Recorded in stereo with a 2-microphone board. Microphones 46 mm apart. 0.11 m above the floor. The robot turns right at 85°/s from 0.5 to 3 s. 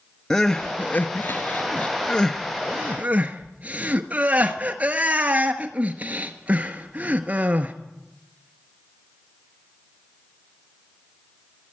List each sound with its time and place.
0.3 s crying: 10° left (ahead or behind), 1.0 m; by 7.7 s 30° right (ahead or behind), 1.0 m